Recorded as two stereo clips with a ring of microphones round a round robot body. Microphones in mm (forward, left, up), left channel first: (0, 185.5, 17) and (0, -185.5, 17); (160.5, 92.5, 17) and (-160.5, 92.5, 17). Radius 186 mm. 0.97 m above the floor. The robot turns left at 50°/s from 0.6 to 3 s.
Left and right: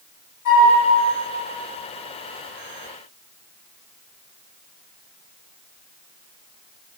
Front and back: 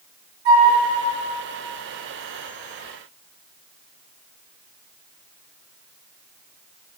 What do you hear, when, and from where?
0.5 s a flute: 135° left, 1.7 m; by 0.8 s 125° left, 1.7 m